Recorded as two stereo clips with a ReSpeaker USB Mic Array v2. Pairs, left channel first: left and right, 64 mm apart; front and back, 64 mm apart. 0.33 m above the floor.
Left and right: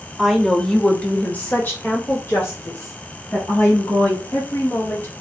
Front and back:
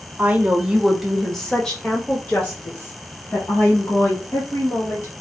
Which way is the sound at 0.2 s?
Straight behind.